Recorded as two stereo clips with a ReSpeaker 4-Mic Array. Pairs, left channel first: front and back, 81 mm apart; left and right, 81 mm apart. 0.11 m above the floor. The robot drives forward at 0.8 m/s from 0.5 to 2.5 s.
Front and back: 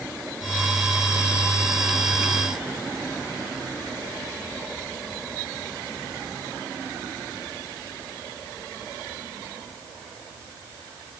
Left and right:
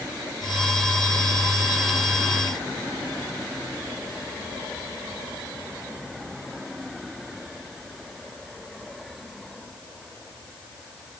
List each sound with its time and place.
Only background noise.